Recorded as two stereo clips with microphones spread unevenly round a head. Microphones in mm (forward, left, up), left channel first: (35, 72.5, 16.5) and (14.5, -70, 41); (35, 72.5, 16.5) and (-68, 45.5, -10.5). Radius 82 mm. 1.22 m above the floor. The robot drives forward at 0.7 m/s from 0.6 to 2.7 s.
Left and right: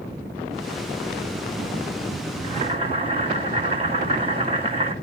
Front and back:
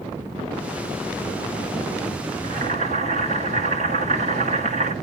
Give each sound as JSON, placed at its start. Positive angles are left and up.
{"t": 2.4, "sound": "boiling", "azimuth_deg": -155, "distance_m": 2.0}